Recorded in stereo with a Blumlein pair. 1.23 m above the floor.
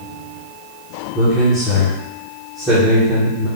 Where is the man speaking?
5° left, 1.2 m.